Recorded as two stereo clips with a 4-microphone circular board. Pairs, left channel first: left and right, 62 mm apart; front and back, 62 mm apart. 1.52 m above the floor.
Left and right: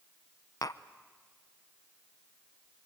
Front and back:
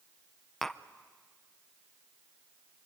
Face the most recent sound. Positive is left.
turn(degrees=85)